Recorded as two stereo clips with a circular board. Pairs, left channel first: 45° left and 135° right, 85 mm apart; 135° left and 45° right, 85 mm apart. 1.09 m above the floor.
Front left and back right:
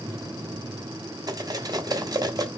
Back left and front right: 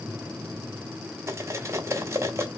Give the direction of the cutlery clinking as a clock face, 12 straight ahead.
3 o'clock.